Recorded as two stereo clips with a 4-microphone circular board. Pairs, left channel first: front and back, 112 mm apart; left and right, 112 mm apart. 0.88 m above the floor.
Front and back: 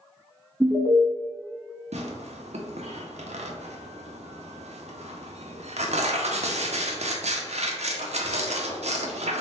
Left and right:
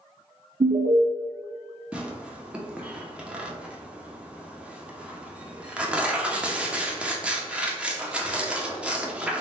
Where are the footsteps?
I don't hear footsteps.